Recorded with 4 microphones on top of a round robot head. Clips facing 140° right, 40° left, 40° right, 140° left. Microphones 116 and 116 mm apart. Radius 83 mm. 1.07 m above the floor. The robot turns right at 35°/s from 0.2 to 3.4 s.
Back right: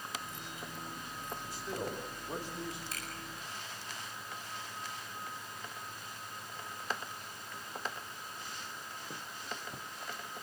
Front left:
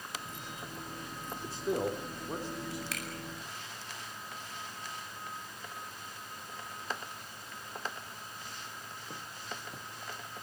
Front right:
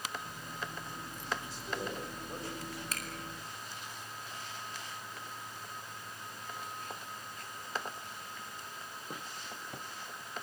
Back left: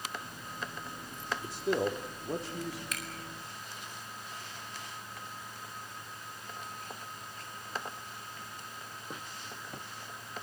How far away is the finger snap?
About 8 m.